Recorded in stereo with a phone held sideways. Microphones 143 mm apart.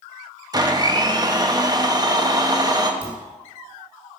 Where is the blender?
25° right (ahead or behind), 0.8 m.